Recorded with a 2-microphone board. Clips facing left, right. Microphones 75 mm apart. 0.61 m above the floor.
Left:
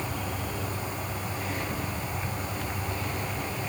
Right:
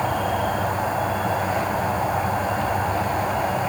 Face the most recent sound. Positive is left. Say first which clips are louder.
# right 11 dB
turn(degrees=-80)